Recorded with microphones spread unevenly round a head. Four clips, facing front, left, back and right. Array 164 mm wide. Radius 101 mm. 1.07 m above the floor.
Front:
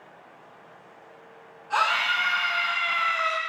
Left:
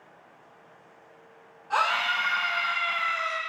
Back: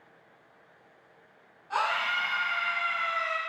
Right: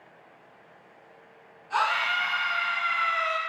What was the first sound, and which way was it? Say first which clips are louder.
A scream: even, front 4 dB; 75° left.